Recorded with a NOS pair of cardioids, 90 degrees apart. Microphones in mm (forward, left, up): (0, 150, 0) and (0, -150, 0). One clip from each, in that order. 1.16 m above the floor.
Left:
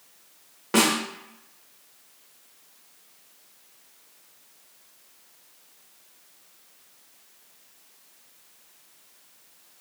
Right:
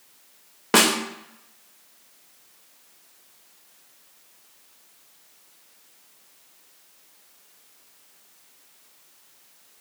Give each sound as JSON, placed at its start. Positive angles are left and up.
{"t": 0.7, "sound": "a snare drum", "azimuth_deg": -40, "distance_m": 0.5}